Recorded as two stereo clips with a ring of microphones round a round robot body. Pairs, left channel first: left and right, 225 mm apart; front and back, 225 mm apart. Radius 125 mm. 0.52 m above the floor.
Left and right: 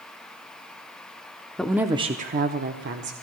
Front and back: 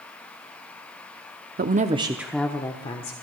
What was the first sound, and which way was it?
A woman speaking, 175° left.